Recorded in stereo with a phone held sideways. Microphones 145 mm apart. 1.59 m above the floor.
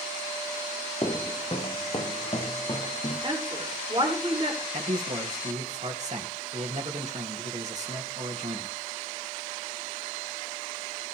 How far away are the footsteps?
About 1.9 m.